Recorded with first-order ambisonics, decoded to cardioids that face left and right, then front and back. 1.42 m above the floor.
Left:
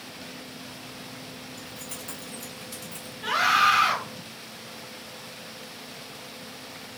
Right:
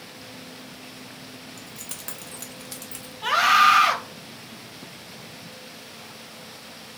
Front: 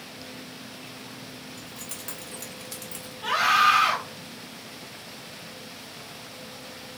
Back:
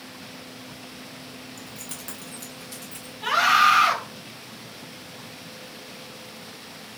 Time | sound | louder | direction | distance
1.6 | keys jangling | even, back 1 dB | 130° right | 0.6 m
3.2 | a scream | right 4 dB, back 2 dB | 110° right | 1.0 m